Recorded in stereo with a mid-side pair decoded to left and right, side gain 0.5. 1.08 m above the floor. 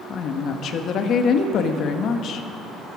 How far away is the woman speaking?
About 1.2 m.